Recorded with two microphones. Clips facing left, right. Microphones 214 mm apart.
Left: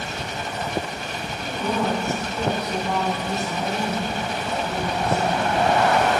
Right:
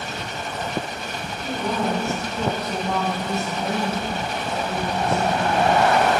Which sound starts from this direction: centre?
A woman speaking, at 1.4 s.